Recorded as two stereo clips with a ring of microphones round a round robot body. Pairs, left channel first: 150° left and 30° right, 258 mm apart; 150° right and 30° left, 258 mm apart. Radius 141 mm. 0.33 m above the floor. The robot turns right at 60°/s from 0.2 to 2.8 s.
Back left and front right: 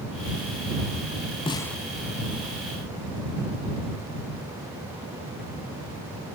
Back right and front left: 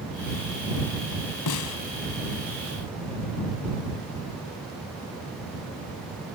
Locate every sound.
1.5 s a snare drum: 140° right; by 1.8 s 120° right